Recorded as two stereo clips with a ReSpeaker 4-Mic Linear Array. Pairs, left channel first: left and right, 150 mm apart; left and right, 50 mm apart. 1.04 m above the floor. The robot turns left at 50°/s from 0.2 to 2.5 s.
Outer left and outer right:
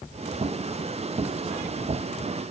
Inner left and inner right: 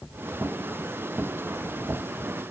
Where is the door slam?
I don't hear a door slam.